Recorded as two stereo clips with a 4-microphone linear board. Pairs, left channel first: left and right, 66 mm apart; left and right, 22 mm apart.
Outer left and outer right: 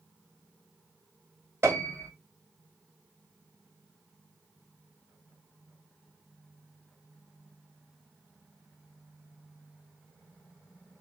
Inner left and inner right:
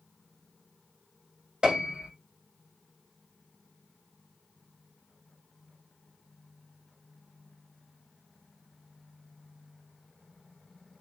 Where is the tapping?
I don't hear tapping.